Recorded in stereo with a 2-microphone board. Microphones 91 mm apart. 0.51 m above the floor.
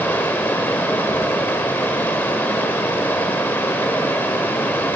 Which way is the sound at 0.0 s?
20° left (ahead or behind).